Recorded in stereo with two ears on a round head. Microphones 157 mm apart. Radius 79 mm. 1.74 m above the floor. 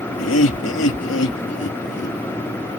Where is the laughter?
80° left; by 2.2 s 65° left (ahead or behind).